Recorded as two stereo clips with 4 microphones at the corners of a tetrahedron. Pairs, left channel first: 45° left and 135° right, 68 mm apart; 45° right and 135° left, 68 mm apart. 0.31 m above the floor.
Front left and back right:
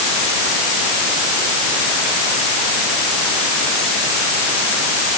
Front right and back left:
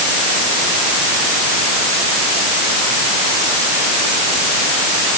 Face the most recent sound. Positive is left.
No sound to turn to.